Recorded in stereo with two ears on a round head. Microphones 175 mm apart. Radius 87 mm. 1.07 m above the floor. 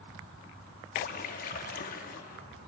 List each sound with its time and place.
0.9 s a splash: 45° left (ahead or behind), 0.8 m